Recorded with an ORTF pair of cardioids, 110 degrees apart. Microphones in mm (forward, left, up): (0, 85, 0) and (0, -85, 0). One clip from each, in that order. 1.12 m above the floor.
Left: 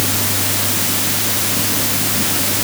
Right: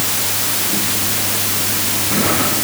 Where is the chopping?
No chopping in this recording.